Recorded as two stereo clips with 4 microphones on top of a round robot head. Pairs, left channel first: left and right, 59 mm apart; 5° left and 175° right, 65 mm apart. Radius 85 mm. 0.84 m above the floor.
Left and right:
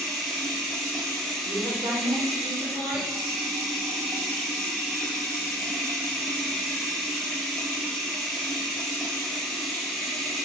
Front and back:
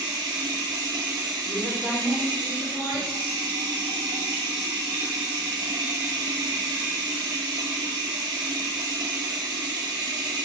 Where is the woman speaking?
105° right, 3 m.